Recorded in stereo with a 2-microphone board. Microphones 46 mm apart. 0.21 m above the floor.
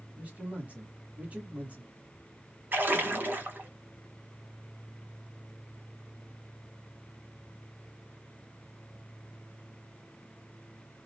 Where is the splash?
45° right (ahead or behind), 0.8 m.